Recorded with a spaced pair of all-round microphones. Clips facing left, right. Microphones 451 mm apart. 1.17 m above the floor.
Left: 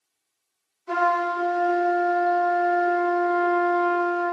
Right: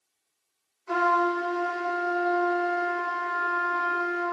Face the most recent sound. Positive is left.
turn(degrees=55)  # may be behind; listen again after turning